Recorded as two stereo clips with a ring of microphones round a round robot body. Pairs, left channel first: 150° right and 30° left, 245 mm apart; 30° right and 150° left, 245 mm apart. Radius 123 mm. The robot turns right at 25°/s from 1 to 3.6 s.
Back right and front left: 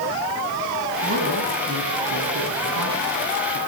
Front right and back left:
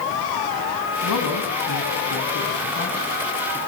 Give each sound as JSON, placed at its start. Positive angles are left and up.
{"t": 1.0, "sound": "a man speaking", "azimuth_deg": -25, "distance_m": 4.0}